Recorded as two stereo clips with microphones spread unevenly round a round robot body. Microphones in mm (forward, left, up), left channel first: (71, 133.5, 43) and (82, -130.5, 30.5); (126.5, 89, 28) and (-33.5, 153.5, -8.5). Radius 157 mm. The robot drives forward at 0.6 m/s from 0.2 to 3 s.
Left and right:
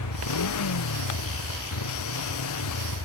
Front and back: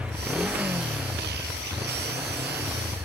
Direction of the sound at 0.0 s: 75° left.